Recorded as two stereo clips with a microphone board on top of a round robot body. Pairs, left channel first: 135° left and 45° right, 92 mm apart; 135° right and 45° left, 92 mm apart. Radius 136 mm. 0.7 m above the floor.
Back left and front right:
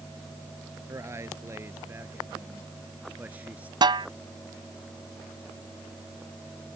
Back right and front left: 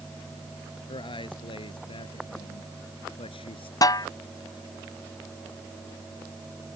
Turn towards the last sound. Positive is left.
turn(degrees=-85)